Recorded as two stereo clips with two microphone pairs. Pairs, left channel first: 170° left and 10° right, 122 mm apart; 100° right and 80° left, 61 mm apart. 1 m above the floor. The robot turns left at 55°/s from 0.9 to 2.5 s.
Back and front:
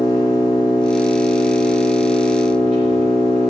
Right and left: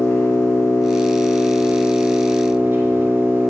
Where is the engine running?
140° right, 5 m; by 3.5 s 130° left, 5 m.